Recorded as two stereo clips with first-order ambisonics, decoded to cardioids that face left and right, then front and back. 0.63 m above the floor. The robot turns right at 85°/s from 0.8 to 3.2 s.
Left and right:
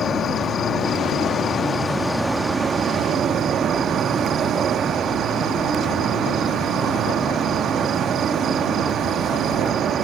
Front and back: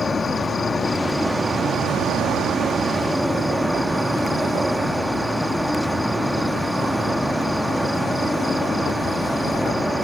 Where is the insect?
60° left; by 10.0 s 95° right.